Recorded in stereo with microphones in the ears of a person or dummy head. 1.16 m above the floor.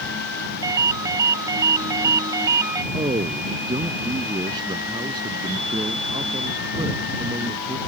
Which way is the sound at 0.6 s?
25° right (ahead or behind).